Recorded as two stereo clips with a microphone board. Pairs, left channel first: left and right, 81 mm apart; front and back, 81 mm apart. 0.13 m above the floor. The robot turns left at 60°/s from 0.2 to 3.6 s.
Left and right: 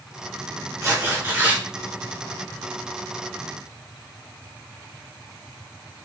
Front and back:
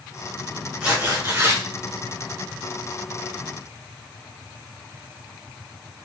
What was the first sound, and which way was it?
Tearing paper, 110° right.